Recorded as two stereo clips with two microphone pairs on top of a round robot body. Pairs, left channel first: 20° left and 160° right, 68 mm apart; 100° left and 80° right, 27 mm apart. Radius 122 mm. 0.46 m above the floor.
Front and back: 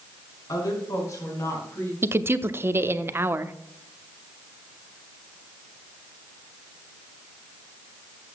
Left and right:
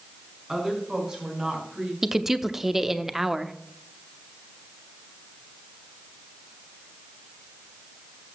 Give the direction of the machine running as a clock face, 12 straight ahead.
I don't hear a machine running.